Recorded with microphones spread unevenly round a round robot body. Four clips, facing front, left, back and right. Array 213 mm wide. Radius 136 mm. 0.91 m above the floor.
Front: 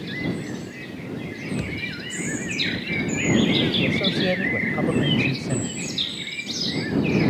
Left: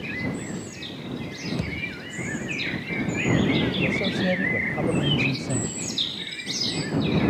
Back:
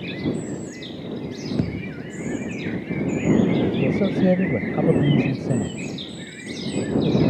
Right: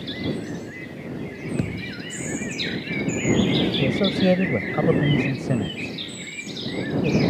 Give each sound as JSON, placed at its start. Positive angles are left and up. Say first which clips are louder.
{"t": 1.6, "sound": "a thud", "louder": "right 3 dB, back 4 dB", "azimuth_deg": -155}
{"t": 3.8, "sound": "a man speaking", "louder": "right 4 dB, back 3 dB", "azimuth_deg": -145}